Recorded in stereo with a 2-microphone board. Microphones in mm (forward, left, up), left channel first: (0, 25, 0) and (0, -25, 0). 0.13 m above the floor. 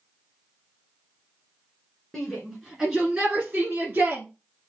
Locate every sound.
2.1 s a shout: 5° left (ahead or behind), 1.6 m; by 4.2 s 40° right (ahead or behind), 1.8 m